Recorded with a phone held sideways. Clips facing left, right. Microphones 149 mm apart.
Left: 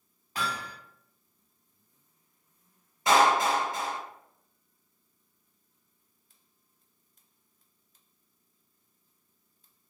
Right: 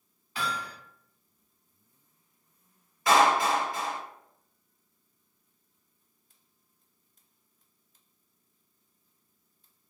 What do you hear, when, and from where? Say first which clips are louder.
0.3 s hammering: even; 40° left (ahead or behind), 1.4 m
3.1 s a clap: even; 25° left (ahead or behind), 1.5 m